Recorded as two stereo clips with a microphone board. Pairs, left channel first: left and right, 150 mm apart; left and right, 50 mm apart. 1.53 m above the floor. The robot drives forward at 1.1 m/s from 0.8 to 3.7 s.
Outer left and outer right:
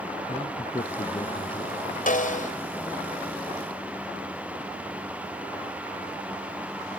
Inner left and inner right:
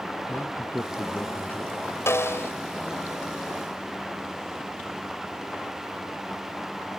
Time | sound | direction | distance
0.3 | a man speaking | 40° left (ahead or behind) | ?
2.1 | a snare drum | 65° left (ahead or behind) | ?